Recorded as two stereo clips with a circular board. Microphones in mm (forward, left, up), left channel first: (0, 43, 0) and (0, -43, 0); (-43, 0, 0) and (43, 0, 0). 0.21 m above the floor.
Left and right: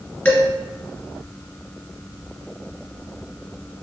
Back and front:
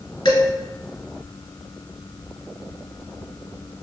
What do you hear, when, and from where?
0.2 s dishes clattering: 155° left, 1.9 m